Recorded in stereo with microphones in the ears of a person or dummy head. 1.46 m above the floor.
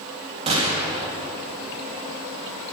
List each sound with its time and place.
0.5 s a gunshot: 35° right (ahead or behind), 3 m